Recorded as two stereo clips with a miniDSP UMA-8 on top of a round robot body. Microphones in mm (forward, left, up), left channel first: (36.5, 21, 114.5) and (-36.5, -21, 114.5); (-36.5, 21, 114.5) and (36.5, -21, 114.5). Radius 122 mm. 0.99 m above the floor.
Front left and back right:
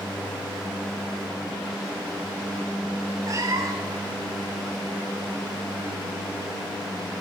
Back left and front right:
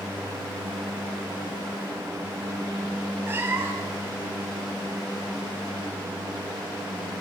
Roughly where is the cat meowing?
Right.